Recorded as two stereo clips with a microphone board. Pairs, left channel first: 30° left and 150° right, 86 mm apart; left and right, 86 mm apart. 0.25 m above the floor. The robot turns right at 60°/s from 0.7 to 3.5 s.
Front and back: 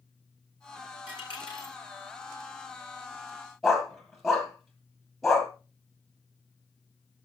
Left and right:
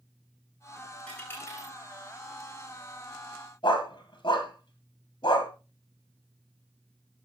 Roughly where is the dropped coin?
Ahead.